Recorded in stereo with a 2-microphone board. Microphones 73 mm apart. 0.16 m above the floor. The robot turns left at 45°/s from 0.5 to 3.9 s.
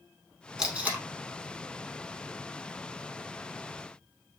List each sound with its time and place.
0.6 s tape being pulled: 10° right (ahead or behind), 0.8 m; by 1.0 s 25° right (ahead or behind), 0.8 m